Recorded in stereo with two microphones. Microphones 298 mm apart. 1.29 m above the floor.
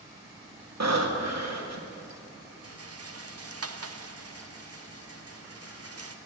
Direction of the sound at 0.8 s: 60° right (ahead or behind).